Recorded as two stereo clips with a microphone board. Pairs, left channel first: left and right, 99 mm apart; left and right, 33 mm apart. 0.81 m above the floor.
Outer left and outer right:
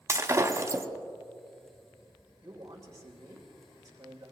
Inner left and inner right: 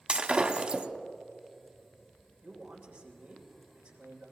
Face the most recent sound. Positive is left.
turn(degrees=-35)  # may be behind; listen again after turning